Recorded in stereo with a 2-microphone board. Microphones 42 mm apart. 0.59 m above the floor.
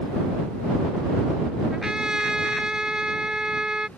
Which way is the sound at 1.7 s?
20° right (ahead or behind).